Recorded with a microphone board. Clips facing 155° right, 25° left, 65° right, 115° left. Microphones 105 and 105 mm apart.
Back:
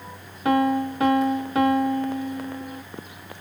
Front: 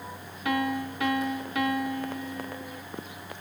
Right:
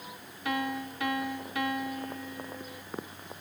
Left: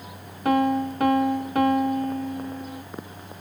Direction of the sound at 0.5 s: 150° left.